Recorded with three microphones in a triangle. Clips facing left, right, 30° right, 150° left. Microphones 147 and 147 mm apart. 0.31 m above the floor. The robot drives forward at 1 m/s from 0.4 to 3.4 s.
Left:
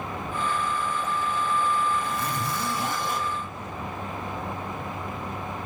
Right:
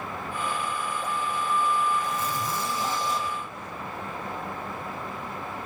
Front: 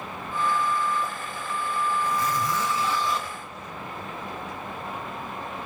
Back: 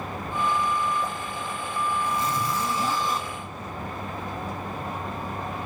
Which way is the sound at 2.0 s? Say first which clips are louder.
Even, front 1 dB; 80° left.